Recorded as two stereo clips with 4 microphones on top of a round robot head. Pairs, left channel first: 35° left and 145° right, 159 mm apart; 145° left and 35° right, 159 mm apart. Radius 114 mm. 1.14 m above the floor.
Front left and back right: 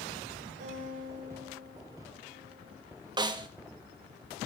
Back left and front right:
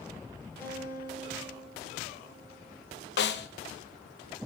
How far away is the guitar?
About 9.5 m.